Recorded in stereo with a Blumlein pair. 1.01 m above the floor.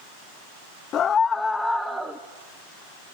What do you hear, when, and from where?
0.9 s a scream: 30° left, 1.0 m; by 2.2 s 15° right, 1.3 m